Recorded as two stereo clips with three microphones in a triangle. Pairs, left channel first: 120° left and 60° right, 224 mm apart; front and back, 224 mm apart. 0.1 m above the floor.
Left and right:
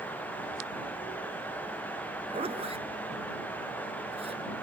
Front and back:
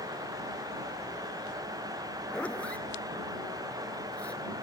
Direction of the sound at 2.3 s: 80° right.